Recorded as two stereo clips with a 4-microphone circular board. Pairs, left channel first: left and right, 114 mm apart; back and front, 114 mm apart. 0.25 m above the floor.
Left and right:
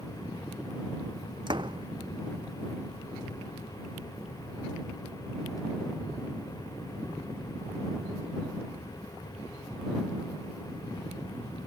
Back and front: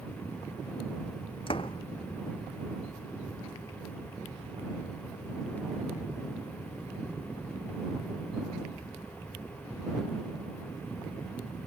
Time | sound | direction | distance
1.5 | a door slam | 140° right | ?